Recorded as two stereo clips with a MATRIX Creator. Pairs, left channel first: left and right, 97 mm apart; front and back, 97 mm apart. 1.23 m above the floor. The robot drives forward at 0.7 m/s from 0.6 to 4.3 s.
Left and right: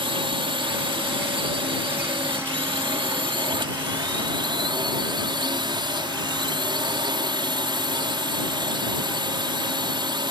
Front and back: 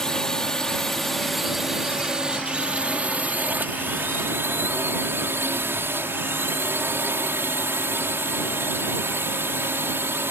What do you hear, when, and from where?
0.0 s a drone: 85° right; by 10.3 s 115° right